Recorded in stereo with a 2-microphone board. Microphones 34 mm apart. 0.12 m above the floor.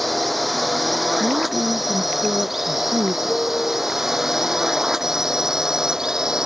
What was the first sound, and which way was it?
A drone, centre (ahead or behind).